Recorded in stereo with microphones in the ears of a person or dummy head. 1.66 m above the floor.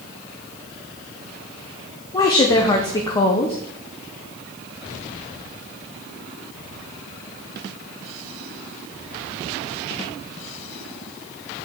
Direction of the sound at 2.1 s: 20° left (ahead or behind).